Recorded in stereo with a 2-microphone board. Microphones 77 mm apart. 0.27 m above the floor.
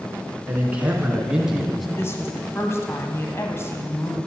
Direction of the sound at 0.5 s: 20° right (ahead or behind).